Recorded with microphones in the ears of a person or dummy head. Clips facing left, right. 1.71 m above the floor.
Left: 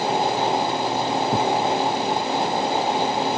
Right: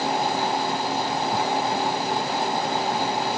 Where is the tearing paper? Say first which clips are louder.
Left 5 dB; 35° left (ahead or behind).